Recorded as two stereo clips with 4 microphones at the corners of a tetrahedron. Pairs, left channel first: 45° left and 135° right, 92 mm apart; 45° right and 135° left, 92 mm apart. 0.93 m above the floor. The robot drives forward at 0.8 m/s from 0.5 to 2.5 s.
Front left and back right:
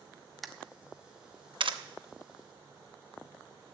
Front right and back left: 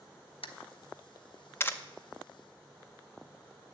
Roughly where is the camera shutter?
Ahead right.